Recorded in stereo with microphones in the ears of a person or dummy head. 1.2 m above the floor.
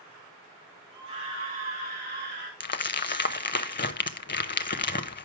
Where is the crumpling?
40° left (ahead or behind), 0.5 m.